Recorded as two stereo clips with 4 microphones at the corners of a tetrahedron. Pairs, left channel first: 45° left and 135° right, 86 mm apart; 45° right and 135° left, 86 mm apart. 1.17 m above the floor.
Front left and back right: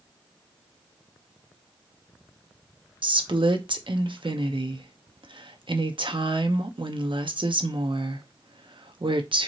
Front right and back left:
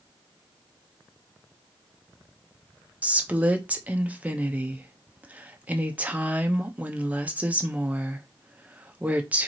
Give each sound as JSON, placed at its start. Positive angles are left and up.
{"t": 3.0, "sound": "a woman speaking", "azimuth_deg": -150, "distance_m": 0.9}